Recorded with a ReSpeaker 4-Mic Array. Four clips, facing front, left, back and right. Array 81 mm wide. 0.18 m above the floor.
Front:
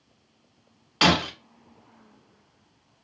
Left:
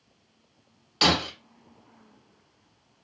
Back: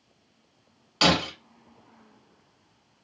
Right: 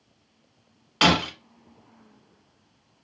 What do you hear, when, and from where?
1.0 s breaking glass: 65° right, 0.9 m